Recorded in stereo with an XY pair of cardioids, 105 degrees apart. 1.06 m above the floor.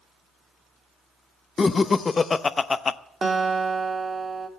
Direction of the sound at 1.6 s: 35° left.